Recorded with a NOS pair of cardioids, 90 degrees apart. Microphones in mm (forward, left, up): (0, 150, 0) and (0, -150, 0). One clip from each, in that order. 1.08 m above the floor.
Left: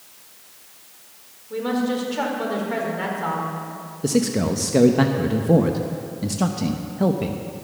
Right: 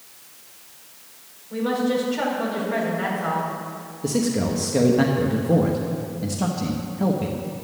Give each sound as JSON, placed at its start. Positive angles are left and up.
{"t": 1.5, "sound": "a woman speaking", "azimuth_deg": 35, "distance_m": 4.0}
{"t": 4.0, "sound": "a man speaking", "azimuth_deg": 25, "distance_m": 0.9}